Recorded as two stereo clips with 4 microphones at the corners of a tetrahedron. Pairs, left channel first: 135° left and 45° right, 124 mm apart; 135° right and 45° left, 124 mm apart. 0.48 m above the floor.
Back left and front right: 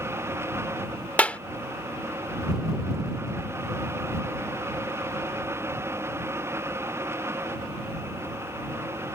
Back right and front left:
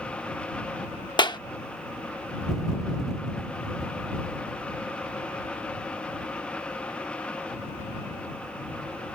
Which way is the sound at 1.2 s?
155° right.